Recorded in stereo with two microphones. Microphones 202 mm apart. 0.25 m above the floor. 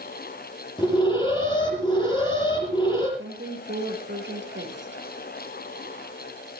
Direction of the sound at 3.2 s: 65° right (ahead or behind).